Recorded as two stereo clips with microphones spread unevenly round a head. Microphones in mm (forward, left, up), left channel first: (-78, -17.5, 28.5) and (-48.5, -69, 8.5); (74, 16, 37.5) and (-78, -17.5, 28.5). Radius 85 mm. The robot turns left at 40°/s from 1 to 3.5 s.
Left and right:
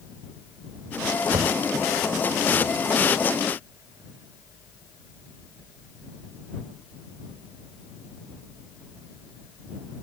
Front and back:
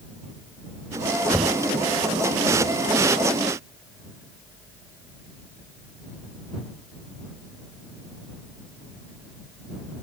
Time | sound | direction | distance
1.3 | knocking | 85° right | ?